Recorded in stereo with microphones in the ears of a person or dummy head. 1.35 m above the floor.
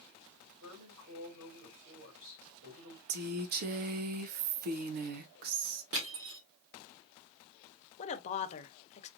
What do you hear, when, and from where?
0.6 s a woman speaking: 85° right, 3.5 m
3.1 s a woman speaking: 50° right (ahead or behind), 0.5 m
5.9 s crushing: 65° right (ahead or behind), 1.6 m
8.0 s a woman speaking: 35° left (ahead or behind), 0.9 m